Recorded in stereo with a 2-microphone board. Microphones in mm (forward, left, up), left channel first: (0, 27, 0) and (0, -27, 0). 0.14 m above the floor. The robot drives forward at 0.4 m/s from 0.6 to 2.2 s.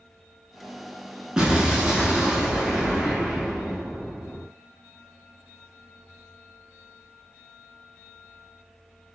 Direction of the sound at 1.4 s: 15° right (ahead or behind).